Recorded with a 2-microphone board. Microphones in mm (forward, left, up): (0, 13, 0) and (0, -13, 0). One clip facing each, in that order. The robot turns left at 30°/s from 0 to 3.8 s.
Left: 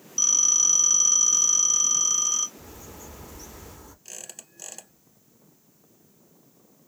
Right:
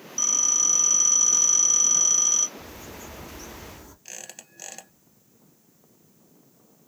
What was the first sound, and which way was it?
A phone ringing, 45° left.